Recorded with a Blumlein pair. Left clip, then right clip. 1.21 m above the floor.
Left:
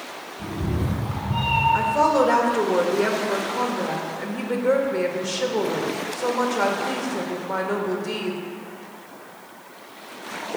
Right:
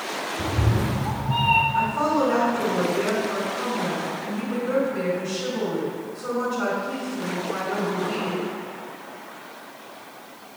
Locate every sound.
0.4 s a cat meowing: 35° right, 2 m; by 1.6 s 75° right, 1.2 m
1.7 s a woman speaking: 55° left, 1.5 m